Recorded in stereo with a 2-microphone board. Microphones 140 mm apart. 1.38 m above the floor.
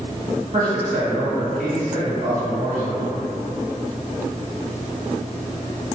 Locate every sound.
0.5 s a man speaking: 75° right (ahead or behind), 1.4 m